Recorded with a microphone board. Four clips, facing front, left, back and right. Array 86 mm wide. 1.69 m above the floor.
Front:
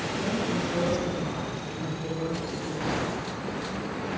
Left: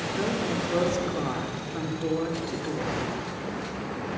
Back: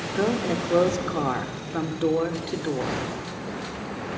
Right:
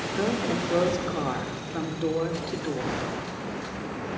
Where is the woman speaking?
170° right, 4 m.